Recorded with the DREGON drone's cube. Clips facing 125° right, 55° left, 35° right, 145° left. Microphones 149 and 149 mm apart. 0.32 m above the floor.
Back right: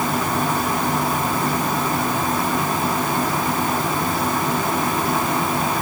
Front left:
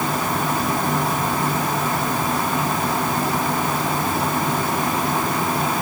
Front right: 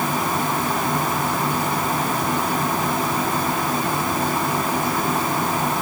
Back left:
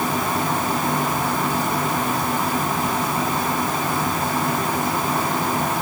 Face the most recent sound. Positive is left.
No sound to turn to.